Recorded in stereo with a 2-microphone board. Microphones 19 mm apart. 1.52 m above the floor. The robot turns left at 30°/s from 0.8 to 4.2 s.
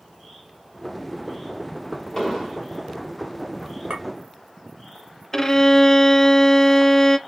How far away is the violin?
About 0.5 m.